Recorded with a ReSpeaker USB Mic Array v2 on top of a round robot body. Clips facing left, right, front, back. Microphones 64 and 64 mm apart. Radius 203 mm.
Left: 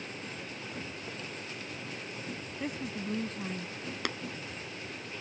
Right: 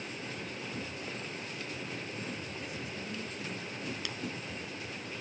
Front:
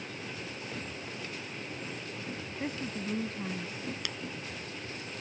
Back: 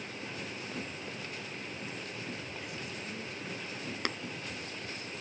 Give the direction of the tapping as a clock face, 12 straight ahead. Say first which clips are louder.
Left 6 dB, back 4 dB; 8 o'clock.